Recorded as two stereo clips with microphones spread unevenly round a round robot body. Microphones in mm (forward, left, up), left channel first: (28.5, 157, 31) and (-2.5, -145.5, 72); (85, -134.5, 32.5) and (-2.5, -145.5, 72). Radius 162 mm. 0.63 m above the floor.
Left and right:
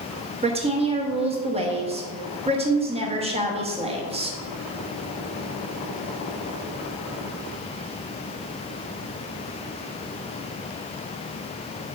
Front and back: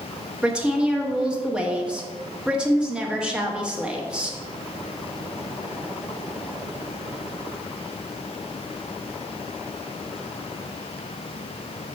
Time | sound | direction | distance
0.4 | a woman speaking | 40° right | 1.1 m